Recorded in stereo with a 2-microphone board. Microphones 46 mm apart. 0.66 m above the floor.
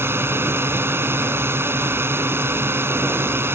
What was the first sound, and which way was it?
A drone, 60° right (ahead or behind).